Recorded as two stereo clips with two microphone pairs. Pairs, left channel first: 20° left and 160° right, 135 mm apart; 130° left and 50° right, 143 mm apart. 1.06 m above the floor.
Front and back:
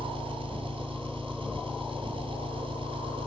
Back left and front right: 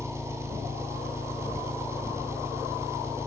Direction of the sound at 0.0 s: 120° right.